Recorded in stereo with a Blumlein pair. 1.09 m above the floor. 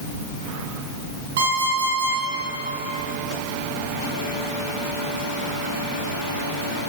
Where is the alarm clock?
55° right, 7.5 m.